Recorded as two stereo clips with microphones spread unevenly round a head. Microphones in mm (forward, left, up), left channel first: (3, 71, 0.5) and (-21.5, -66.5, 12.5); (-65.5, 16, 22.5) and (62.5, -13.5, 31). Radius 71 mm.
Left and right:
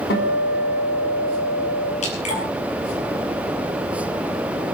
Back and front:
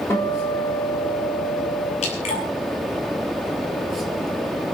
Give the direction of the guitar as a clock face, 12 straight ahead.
9 o'clock.